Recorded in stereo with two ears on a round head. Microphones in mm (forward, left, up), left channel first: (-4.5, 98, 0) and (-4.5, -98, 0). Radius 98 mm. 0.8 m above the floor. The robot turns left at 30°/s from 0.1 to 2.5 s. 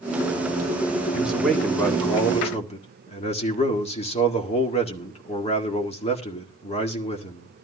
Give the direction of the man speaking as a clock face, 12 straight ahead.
6 o'clock.